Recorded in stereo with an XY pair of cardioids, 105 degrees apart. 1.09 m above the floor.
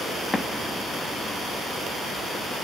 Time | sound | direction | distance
0.3 | an explosion | 25° left | 1.3 m